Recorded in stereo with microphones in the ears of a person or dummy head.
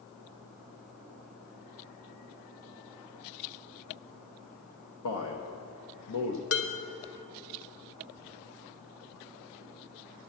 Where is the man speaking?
90° left, 1.2 m.